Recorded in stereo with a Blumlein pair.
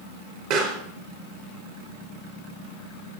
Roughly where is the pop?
Ahead right.